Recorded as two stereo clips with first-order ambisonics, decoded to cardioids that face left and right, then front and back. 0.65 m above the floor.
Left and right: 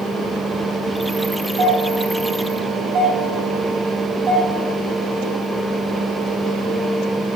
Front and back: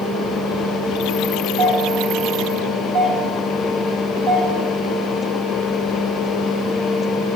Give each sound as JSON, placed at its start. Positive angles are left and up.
{"t": 1.6, "sound": "a doorbell", "azimuth_deg": -145, "distance_m": 4.5}